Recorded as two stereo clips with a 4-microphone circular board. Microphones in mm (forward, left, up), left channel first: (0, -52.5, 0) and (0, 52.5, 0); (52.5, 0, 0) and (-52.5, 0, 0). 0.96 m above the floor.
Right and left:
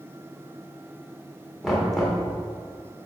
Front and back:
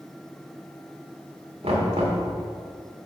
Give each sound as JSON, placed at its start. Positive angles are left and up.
{"t": 1.6, "sound": "knocking", "azimuth_deg": 180, "distance_m": 1.9}